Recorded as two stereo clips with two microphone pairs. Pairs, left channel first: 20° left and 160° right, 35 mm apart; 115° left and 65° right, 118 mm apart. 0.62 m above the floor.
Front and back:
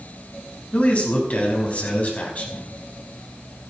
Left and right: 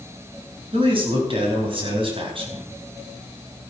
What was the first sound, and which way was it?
A man speaking, 25° right.